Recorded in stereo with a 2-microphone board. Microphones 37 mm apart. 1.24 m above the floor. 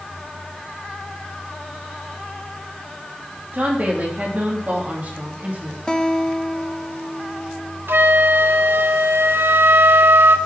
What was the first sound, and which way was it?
A woman speaking, 45° right (ahead or behind).